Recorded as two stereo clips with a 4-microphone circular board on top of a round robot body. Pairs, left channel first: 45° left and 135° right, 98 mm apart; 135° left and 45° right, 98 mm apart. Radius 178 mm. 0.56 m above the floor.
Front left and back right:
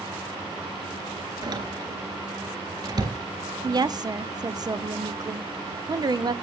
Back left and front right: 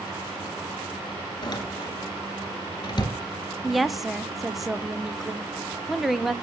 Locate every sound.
1.4 s a door slam: straight behind, 3 m
3.6 s a woman speaking: 135° right, 1.0 m